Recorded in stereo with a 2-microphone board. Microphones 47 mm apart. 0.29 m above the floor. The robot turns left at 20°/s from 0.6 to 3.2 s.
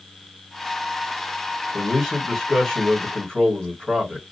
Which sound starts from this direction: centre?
A man speaking, at 1.7 s.